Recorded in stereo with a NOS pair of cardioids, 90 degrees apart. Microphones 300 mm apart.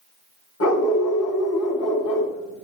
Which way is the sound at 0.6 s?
55° left.